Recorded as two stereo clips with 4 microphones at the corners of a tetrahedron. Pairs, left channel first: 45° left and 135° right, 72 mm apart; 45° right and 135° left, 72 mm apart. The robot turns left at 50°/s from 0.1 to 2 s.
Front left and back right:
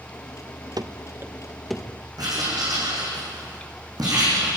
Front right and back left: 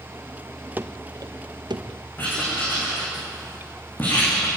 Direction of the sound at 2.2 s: 110° right.